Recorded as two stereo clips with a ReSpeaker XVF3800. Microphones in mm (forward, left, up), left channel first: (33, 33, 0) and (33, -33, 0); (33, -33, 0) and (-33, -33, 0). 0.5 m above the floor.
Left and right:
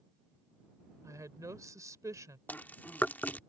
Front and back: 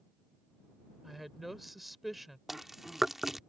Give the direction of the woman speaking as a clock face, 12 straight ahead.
3 o'clock.